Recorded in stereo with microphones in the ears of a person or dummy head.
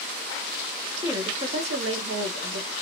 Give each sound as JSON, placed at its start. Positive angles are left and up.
{"t": 1.0, "sound": "a woman speaking", "side_deg": -10, "distance_m": 0.6}